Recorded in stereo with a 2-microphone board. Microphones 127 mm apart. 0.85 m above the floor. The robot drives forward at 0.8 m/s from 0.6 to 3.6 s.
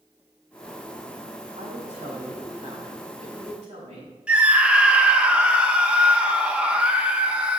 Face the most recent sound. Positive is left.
turn(degrees=-10)  # may be behind; listen again after turning